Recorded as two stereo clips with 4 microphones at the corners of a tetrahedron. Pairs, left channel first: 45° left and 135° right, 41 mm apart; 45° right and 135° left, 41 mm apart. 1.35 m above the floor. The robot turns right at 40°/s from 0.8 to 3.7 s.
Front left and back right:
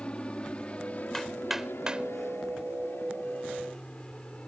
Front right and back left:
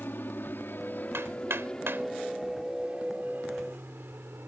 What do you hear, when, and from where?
0.0 s an aircraft: 15° right; by 4.5 s 110° left
1.1 s hammering: 125° left; by 4.5 s 130° right